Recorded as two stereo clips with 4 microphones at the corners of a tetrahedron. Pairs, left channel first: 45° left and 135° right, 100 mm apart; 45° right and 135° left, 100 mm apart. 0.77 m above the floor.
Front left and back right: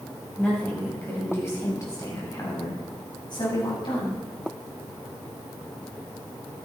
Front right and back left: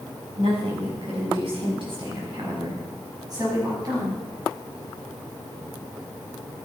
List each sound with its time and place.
0.4 s a woman speaking: 120° left, 5.5 m; by 4.2 s 80° left, 6.5 m